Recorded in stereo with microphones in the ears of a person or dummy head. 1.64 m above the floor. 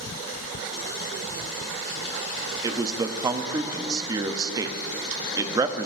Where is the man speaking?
20° right (ahead or behind), 0.6 m.